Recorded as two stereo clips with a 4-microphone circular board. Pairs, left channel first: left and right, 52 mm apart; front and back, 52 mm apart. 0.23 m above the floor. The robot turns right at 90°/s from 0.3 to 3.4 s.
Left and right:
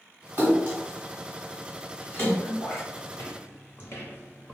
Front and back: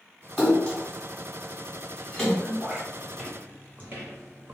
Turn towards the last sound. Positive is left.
turn(degrees=150)